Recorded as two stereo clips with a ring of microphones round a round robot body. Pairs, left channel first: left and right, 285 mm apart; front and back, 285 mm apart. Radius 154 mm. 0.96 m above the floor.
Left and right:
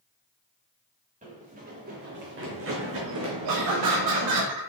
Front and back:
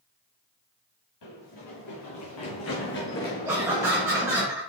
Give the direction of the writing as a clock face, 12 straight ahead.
I don't hear writing.